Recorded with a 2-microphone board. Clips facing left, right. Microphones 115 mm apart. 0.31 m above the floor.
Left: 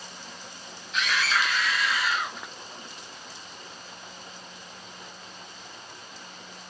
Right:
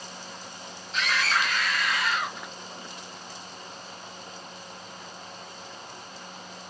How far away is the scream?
About 2 m.